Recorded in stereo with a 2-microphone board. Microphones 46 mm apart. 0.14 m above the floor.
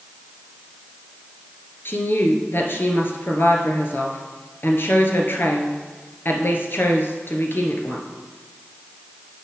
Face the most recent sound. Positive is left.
turn(degrees=50)  # may be behind; listen again after turning